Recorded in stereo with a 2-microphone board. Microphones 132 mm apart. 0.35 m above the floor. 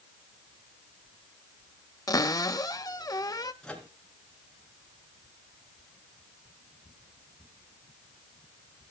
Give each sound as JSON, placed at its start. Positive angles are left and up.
{"t": 2.1, "sound": "a cupboard door", "side_deg": 30, "distance_m": 0.7}
{"t": 3.6, "sound": "a microwave", "side_deg": 5, "distance_m": 3.5}